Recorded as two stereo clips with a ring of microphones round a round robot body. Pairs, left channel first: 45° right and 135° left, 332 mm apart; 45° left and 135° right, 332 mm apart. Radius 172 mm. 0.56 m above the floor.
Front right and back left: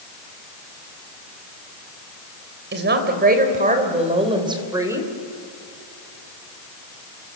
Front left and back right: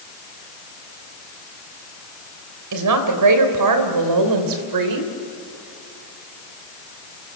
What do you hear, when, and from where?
2.7 s a woman speaking: 170° right, 3.5 m; by 5.1 s 140° right, 3 m